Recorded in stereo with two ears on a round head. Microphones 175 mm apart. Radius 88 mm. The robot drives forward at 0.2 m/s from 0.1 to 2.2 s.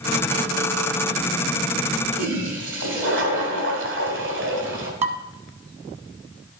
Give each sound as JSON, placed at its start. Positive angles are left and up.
{"t": 2.1, "sound": "a toilet flushing", "side_deg": -65, "distance_m": 1.9}
{"t": 5.0, "sound": "dishes clattering", "side_deg": -35, "distance_m": 1.0}